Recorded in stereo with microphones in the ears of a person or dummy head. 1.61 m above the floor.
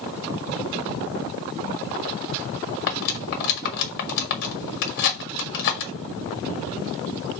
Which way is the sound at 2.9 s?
50° left (ahead or behind).